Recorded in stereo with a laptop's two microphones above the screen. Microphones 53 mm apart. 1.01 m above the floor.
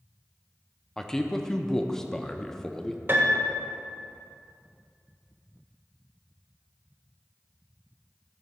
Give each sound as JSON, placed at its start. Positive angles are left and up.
{"t": 1.0, "sound": "a man speaking", "side_deg": 10, "distance_m": 0.5}
{"t": 3.1, "sound": "a piano", "side_deg": -45, "distance_m": 0.9}